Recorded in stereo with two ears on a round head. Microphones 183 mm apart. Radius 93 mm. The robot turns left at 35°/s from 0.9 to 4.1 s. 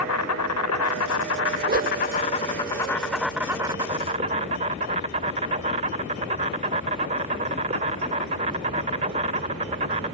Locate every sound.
0.0 s an insect: 80° left; by 10.1 s 30° right
1.6 s a whoosh: 50° right (ahead or behind); by 2.0 s 40° right (ahead or behind)